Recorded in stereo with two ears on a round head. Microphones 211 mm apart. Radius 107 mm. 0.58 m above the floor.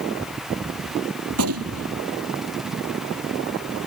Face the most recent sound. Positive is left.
turn(degrees=-75)  # may be behind; listen again after turning